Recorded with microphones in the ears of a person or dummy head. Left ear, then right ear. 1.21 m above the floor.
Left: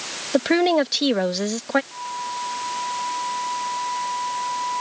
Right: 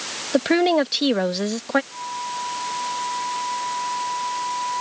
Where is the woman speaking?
Centre (ahead or behind).